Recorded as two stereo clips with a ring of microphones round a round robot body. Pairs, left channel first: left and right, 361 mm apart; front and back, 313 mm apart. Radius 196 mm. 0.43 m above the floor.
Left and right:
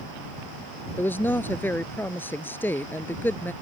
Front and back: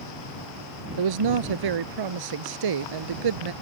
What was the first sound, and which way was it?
A woman speaking, 175° left.